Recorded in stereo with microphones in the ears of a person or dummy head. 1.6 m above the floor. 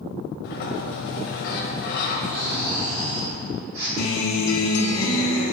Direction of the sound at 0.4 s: 60° left (ahead or behind).